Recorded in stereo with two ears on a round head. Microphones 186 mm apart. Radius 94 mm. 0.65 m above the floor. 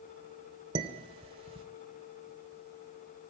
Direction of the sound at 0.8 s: 25° right (ahead or behind).